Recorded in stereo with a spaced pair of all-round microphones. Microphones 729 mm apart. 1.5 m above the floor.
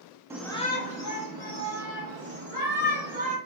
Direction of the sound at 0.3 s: 5° right (ahead or behind).